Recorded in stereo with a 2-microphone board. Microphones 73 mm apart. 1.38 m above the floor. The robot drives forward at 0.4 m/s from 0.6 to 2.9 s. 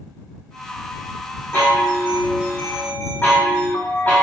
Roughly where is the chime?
Left.